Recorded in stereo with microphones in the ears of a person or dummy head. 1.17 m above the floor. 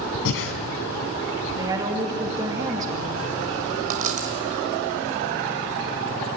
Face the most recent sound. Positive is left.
turn(degrees=-40)  # may be behind; listen again after turning